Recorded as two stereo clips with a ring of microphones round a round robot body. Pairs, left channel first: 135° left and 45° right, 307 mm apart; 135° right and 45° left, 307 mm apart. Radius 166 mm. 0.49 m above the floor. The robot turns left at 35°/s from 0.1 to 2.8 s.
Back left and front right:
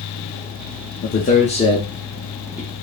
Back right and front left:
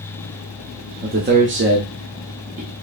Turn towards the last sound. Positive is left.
turn(degrees=30)